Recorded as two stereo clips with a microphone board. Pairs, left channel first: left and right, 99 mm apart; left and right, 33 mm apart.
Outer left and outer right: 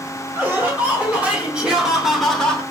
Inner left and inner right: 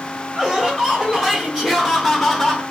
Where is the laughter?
20° right (ahead or behind), 1.9 m; by 2.6 s 10° left (ahead or behind), 0.9 m.